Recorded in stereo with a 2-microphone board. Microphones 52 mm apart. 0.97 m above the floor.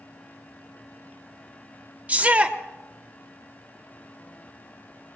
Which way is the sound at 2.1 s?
30° right (ahead or behind).